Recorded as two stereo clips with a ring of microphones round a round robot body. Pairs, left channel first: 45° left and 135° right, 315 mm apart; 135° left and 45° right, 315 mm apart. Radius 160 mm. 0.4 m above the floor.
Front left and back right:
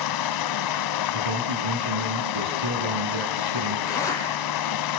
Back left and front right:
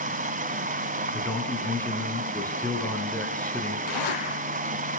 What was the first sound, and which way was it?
Running water, 20° left.